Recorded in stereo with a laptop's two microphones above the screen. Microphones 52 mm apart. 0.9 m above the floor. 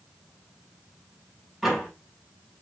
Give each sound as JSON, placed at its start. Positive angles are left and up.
{"t": 1.6, "sound": "a door slam", "side_deg": -5, "distance_m": 6.0}